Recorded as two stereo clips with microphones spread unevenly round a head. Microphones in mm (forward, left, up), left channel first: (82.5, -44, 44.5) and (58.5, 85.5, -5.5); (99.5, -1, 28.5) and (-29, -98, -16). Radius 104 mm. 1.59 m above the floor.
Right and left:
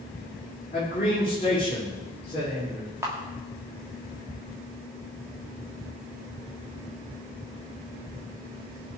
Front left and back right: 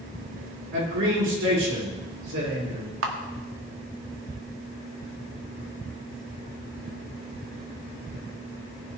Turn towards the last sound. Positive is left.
turn(degrees=-170)